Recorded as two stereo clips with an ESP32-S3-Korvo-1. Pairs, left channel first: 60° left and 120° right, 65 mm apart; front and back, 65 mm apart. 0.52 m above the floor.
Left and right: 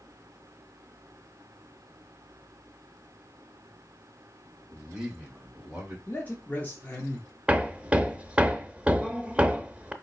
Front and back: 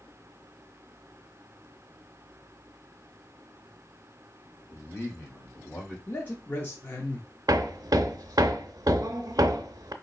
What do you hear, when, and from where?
4.7 s a man speaking: 40° right, 2 m; by 6.0 s 50° right, 3 m
6.1 s a man speaking: 25° left, 0.8 m
7.5 s hammering: 170° left, 0.5 m